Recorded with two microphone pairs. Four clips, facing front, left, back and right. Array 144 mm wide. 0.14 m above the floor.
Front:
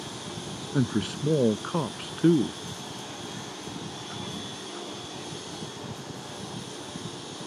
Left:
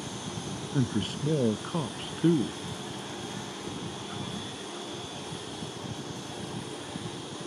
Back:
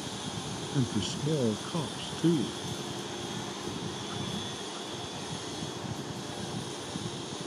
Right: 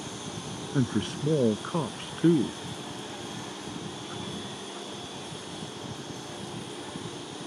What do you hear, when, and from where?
0.7 s a man speaking: 30° right